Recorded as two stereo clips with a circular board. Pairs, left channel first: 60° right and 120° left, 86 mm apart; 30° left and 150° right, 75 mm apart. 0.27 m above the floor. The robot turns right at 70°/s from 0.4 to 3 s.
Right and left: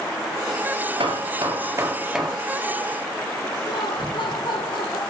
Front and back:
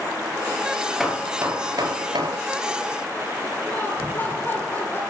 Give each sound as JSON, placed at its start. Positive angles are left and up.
{"t": 1.0, "sound": "hammering", "azimuth_deg": 120, "distance_m": 4.5}
{"t": 3.7, "sound": "laughter", "azimuth_deg": -30, "distance_m": 4.0}